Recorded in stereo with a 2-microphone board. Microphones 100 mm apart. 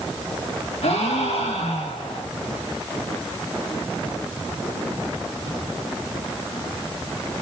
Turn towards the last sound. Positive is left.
turn(degrees=80)